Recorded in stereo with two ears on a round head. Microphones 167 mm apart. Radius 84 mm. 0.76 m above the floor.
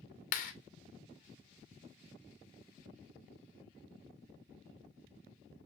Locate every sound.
0.3 s a clap: 45° left (ahead or behind), 1.8 m